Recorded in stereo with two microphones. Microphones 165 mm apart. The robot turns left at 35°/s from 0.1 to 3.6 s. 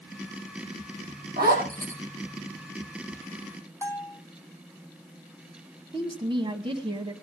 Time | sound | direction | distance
1.4 | a zipper | 70° right (ahead or behind) | 5.5 m
3.8 | a bell | 20° left (ahead or behind) | 1.8 m
5.9 | a woman speaking | 30° right (ahead or behind) | 1.3 m